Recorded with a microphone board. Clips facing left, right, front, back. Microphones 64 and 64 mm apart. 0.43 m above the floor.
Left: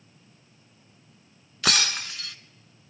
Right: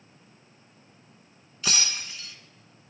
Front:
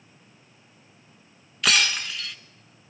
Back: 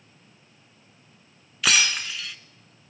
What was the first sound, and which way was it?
Breaking glass, 90° left.